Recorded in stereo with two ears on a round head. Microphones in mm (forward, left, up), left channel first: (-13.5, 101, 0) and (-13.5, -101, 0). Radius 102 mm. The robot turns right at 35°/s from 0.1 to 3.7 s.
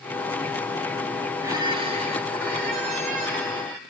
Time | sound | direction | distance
1.4 | a squeak | 165° right | 2 m